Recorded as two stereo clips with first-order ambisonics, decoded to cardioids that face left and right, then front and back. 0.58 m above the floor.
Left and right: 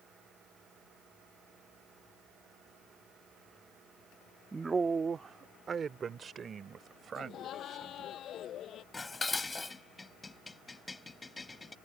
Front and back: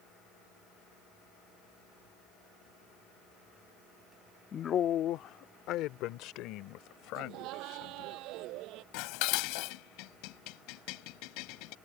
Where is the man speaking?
25° right.